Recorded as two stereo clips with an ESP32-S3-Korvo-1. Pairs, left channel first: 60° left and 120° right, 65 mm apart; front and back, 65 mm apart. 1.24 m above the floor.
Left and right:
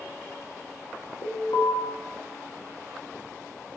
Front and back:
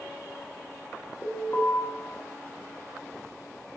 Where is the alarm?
60° left, 1.1 m.